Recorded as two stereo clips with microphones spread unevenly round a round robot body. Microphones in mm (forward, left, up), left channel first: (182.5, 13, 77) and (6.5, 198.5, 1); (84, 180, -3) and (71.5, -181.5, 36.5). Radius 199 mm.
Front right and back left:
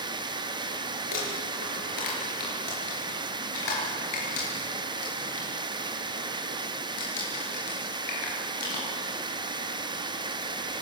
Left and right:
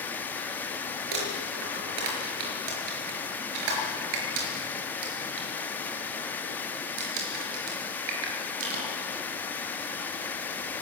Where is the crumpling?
90° right, 5.5 m.